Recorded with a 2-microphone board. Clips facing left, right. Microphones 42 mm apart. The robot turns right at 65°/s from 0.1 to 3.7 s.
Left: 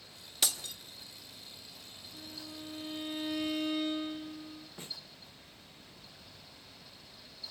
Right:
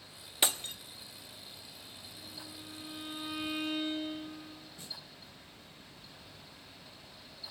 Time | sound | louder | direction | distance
0.4 | breaking glass | right 3 dB | 25° right (ahead or behind) | 1.2 m
2.1 | a violin | left 4 dB | 110° left | 8 m
4.8 | a snare drum | left 2 dB | 40° left (ahead or behind) | 1.7 m